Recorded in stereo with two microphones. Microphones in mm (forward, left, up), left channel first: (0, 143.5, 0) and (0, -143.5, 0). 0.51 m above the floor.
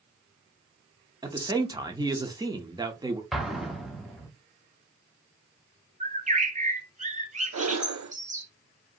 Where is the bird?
25° right (ahead or behind), 0.9 m.